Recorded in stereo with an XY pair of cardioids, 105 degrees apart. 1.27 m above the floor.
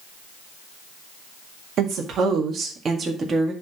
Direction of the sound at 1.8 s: 65° right.